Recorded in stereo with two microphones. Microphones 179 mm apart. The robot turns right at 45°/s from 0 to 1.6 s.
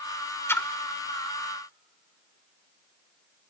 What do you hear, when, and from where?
0.5 s a splash: 15° left (ahead or behind), 0.9 m; by 0.7 s 5° left (ahead or behind), 0.9 m